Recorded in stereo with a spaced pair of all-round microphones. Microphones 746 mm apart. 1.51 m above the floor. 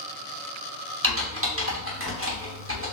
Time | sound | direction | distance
1.0 | typing on a keyboard | 20° right (ahead or behind) | 0.9 m